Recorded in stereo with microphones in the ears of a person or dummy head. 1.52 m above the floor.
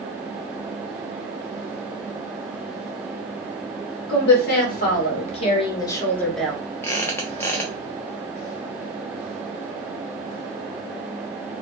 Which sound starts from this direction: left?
A woman speaking, at 4.1 s.